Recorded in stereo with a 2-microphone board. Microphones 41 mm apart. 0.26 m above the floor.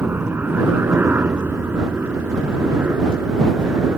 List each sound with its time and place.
0.0 s a helicopter: 60° right (ahead or behind)